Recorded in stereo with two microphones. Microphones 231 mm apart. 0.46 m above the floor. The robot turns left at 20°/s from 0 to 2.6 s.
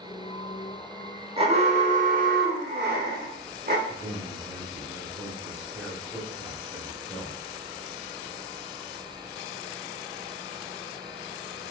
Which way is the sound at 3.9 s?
Centre (ahead or behind).